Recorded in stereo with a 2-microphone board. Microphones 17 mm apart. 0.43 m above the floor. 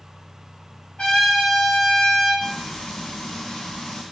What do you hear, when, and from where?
1.0 s a trumpet: 70° left (ahead or behind), 1.7 m
2.4 s frying: 90° left, 1.0 m